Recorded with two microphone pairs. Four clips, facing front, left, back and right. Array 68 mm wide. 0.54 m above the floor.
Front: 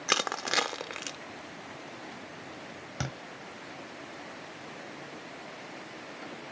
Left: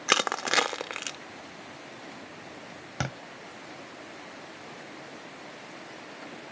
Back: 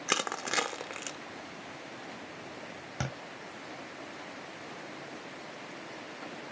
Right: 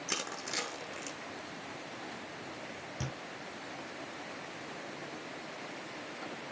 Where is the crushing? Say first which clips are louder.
Left 15 dB, front 2 dB; 80° left, 0.6 m.